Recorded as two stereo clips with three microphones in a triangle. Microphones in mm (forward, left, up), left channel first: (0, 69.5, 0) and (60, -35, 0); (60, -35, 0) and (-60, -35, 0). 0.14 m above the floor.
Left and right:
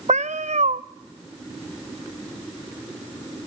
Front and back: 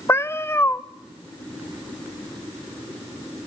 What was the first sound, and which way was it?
A cat meowing, 70° right.